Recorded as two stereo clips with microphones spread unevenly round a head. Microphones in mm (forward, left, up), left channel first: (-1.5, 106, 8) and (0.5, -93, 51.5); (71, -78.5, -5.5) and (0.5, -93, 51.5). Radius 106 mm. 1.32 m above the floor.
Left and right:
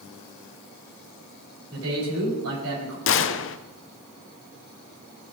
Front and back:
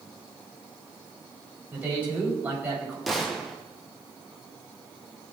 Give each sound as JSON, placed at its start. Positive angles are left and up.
{"t": 1.7, "sound": "a man speaking", "azimuth_deg": -105, "distance_m": 9.0}
{"t": 3.1, "sound": "a gunshot", "azimuth_deg": 90, "distance_m": 0.8}